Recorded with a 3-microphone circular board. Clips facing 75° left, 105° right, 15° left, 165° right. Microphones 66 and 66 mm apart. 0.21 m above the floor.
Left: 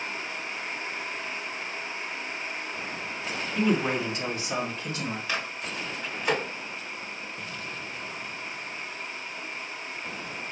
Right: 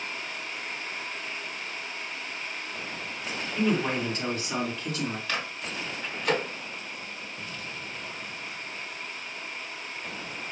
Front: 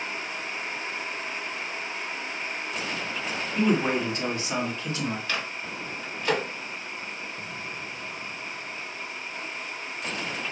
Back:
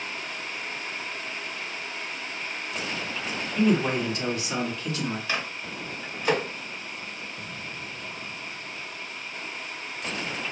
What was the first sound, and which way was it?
A man speaking, 5° left.